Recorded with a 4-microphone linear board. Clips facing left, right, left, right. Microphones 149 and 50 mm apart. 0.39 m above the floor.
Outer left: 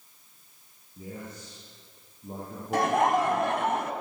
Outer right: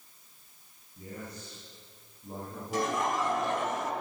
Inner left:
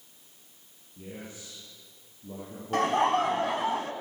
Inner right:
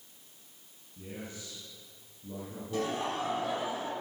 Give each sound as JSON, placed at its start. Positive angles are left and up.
{"t": 1.0, "sound": "a man speaking", "side_deg": 25, "distance_m": 10.0}
{"t": 2.7, "sound": "laughter", "side_deg": 60, "distance_m": 2.5}